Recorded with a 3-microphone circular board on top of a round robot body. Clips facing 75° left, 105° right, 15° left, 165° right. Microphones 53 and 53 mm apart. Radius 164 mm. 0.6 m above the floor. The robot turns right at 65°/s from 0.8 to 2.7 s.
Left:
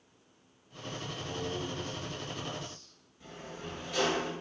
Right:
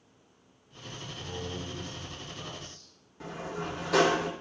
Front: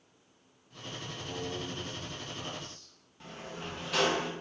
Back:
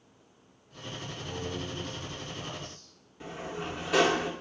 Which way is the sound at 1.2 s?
90° right.